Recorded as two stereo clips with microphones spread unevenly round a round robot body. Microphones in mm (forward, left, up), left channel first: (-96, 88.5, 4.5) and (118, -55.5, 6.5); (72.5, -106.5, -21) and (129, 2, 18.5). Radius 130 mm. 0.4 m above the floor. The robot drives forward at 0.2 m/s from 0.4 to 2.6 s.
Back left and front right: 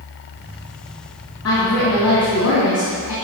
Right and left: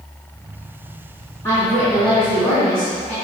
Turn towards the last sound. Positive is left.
turn(degrees=170)